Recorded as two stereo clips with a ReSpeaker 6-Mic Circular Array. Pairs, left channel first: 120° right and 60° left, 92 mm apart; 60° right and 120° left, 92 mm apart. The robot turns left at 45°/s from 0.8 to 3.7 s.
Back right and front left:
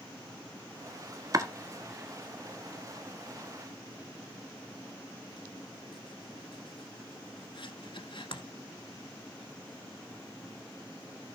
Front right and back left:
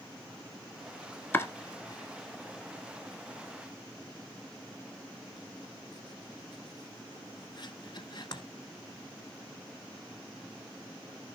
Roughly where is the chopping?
Ahead.